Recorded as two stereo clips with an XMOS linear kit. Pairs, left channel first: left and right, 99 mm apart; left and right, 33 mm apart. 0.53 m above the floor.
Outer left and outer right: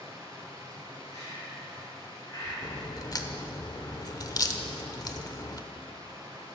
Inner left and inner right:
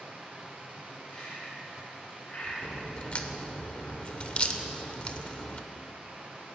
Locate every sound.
0.0 s running water: 40° right (ahead or behind), 2 m
1.1 s breathing: 30° left (ahead or behind), 3.5 m
2.6 s a crack: 40° left (ahead or behind), 0.7 m